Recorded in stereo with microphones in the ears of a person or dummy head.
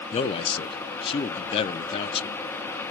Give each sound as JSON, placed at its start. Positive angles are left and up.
{"t": 0.1, "sound": "a man speaking", "side_deg": 25, "distance_m": 0.6}